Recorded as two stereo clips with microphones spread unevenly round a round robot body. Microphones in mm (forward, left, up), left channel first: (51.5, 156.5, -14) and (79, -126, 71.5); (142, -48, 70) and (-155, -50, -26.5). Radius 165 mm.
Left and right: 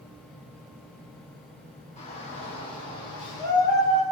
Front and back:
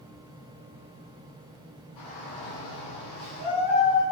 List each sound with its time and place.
2.0 s a shout: 30° left, 8.5 m; by 4.0 s 15° left, 9 m